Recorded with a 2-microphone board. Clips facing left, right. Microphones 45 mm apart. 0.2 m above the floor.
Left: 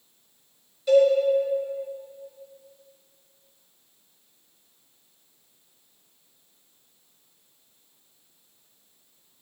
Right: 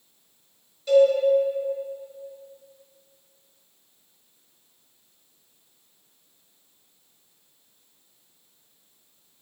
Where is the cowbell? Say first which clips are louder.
Right 1 dB; 5° left (ahead or behind), 2.5 m.